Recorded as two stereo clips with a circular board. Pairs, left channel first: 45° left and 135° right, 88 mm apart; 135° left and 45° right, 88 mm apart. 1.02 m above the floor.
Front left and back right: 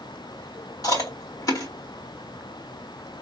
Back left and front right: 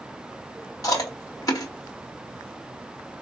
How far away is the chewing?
About 3 m.